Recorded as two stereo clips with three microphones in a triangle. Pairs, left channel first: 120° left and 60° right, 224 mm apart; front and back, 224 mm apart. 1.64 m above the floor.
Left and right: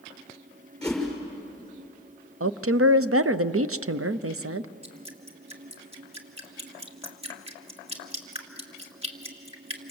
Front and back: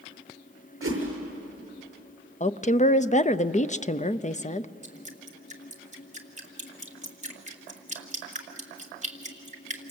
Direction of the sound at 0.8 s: 155° right.